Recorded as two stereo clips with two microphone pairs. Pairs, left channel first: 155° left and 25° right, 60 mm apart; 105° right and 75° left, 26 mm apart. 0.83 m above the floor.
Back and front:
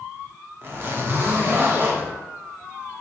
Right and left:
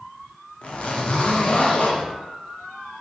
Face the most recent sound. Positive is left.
turn(degrees=-75)